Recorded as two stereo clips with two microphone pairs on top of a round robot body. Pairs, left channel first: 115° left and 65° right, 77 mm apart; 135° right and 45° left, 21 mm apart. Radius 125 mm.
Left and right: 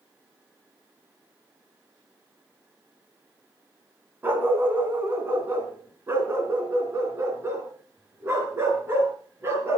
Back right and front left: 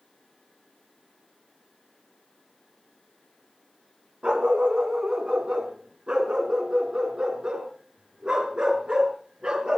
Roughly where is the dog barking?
Ahead.